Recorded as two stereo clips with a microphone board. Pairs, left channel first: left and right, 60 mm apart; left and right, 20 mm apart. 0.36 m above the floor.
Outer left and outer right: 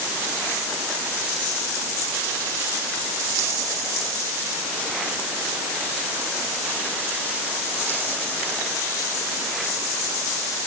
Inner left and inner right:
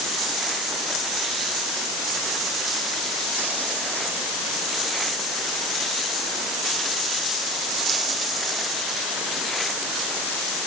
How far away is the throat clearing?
I don't hear throat clearing.